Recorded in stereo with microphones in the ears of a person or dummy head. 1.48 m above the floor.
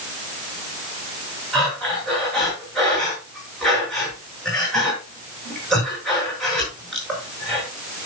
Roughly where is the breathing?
Centre.